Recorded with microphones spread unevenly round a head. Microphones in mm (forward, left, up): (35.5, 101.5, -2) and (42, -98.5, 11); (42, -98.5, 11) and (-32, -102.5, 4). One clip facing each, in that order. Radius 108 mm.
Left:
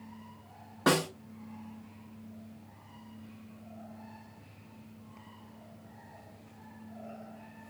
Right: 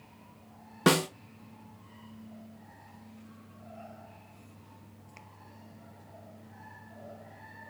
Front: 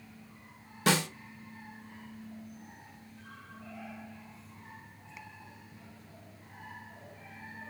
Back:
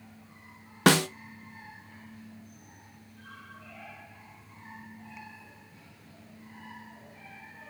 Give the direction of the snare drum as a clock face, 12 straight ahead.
5 o'clock.